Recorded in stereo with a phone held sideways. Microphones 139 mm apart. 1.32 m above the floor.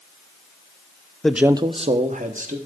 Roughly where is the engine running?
I don't hear an engine running.